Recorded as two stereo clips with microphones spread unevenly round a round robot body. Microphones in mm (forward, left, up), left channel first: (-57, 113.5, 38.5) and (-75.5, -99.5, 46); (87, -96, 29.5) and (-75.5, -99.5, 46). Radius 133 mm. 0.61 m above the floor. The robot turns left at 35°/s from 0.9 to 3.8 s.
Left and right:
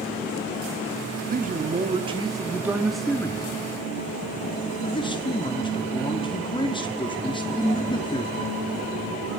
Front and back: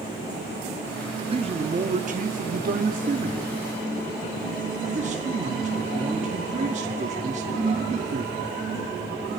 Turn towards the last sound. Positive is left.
turn(degrees=145)